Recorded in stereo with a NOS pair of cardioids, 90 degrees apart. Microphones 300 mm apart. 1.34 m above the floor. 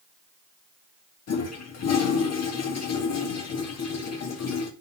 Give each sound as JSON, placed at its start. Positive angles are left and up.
{"t": 1.3, "sound": "a toilet flushing", "azimuth_deg": 60, "distance_m": 1.9}